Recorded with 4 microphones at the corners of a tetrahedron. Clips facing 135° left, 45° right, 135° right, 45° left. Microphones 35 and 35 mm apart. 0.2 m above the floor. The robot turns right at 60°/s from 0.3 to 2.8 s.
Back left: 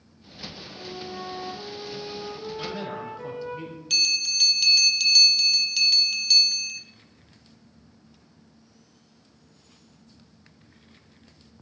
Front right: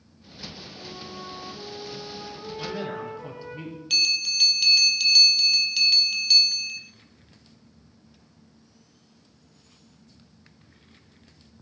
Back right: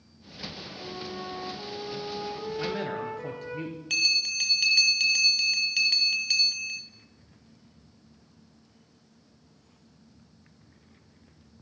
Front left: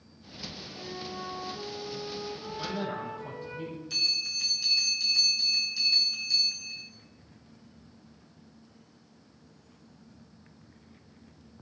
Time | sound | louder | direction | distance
0.8 | a flute | back left 5 dB, back right 1 dB | 75° left | 5 m
2.6 | a man speaking | front right 3 dB, back right 2 dB | 140° right | 3 m
3.9 | a bell | even, back right 5 dB | 125° right | 1.2 m